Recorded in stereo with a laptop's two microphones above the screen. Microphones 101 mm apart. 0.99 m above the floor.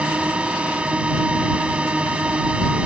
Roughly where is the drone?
Centre.